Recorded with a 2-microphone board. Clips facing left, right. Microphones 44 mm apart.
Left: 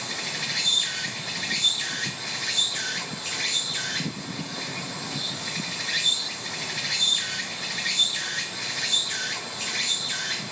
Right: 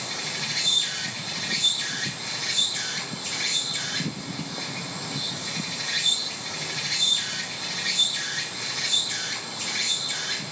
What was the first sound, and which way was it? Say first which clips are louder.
An insect: left 1 dB; 15° left (ahead or behind).